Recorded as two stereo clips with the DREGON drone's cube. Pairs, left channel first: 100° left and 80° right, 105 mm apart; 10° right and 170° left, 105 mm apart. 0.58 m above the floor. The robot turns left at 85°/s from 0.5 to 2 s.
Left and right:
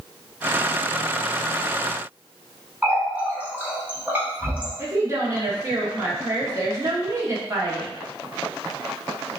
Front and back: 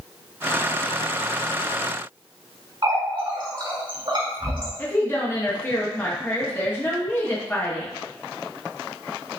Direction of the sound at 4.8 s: 60° right.